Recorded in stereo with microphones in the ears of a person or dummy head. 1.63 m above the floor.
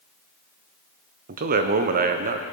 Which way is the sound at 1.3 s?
50° right (ahead or behind).